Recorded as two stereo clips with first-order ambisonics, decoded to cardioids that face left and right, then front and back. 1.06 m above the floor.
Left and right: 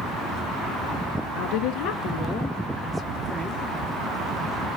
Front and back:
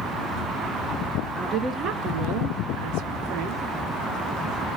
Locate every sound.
1.4 s a woman speaking: 95° left, 0.5 m; by 3.7 s 165° right, 1.0 m